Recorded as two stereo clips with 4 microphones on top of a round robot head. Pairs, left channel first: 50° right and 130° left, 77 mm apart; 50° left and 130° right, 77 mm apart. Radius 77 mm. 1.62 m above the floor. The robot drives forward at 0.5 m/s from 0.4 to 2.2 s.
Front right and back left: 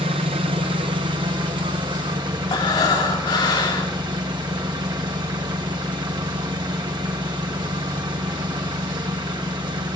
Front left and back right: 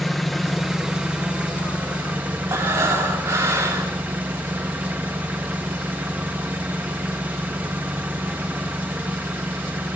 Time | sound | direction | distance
0.0 | an engine running | 140° left | 0.8 m
2.5 | breathing | 80° right | 3 m